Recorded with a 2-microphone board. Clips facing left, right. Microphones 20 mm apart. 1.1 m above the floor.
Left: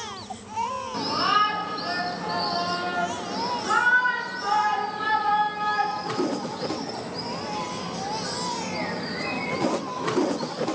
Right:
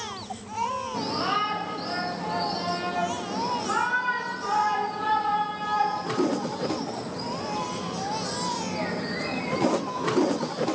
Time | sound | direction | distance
0.9 | a shout | 55° left (ahead or behind) | 4 m